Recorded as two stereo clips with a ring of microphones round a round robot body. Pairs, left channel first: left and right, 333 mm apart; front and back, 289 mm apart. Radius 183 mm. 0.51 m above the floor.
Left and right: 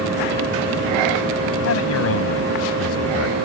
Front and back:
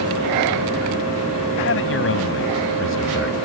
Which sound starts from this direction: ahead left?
A man speaking, at 1.6 s.